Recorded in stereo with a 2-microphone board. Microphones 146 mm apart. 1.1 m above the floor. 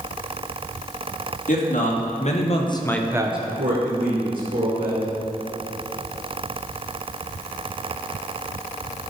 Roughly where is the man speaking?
Left.